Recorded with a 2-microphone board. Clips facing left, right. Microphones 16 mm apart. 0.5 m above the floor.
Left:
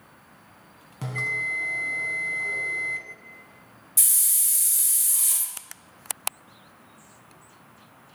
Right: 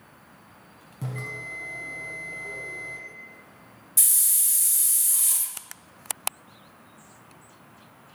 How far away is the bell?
About 0.9 m.